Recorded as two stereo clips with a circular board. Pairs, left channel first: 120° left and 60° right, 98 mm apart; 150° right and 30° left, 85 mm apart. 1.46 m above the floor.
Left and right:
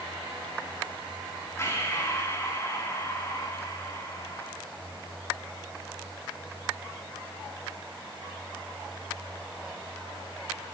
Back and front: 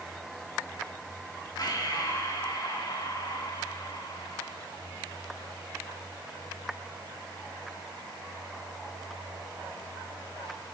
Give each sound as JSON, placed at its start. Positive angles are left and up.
{"t": 1.6, "sound": "breathing", "azimuth_deg": 180, "distance_m": 3.5}